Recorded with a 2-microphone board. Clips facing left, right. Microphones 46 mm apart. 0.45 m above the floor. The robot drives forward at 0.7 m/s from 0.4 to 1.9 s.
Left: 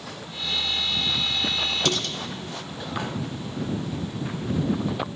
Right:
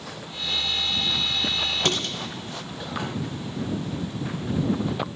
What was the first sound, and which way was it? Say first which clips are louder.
Dishes clattering: even; 40° right (ahead or behind).